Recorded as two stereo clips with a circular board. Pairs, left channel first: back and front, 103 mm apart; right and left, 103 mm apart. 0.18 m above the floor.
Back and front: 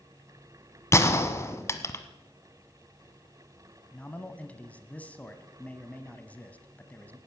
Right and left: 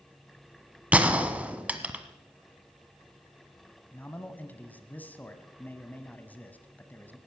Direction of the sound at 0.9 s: 155° left.